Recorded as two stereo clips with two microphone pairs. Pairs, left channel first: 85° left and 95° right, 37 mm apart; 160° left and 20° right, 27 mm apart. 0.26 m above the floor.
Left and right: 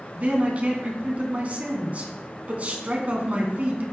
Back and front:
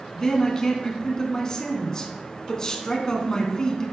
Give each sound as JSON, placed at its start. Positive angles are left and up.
{"t": 0.1, "sound": "a man speaking", "azimuth_deg": -135, "distance_m": 2.0}